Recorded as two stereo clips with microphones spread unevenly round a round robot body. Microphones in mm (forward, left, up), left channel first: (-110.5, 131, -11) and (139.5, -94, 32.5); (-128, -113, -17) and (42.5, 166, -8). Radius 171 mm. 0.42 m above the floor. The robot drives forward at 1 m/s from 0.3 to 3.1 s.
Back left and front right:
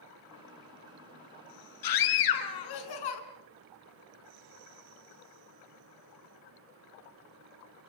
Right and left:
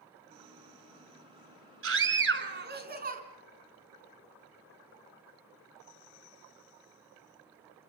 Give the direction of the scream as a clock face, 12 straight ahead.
8 o'clock.